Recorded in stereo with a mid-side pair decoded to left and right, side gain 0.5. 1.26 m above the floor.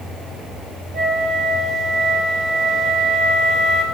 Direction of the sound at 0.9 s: 55° right.